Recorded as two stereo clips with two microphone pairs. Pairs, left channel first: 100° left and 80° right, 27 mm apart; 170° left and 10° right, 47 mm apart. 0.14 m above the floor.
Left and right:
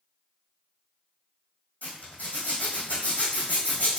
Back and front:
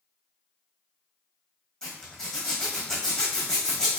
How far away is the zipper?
About 2 m.